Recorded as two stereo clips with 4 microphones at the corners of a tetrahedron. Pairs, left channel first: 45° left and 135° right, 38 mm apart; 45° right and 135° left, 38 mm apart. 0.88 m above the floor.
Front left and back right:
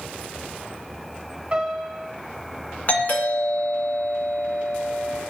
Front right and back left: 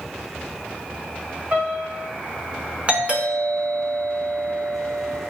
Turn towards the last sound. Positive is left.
turn(degrees=80)